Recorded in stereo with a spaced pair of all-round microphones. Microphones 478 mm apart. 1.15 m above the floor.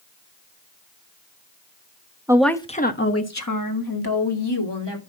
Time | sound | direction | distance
2.3 | a woman speaking | 5° right (ahead or behind) | 1.0 m